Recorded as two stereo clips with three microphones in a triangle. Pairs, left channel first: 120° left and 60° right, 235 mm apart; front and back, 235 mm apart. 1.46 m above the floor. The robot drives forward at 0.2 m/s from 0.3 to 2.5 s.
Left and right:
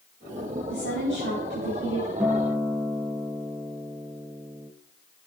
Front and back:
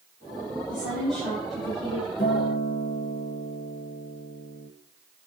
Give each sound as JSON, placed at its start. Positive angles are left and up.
{"t": 0.7, "sound": "a woman speaking", "azimuth_deg": 90, "distance_m": 4.5}
{"t": 2.2, "sound": "a guitar", "azimuth_deg": 25, "distance_m": 0.9}